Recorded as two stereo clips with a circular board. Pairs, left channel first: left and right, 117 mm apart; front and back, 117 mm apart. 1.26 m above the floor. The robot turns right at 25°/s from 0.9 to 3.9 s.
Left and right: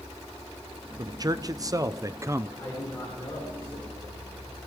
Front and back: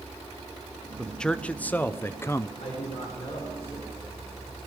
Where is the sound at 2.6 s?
20° left, 4.5 m; by 4.6 s 55° left, 4.5 m.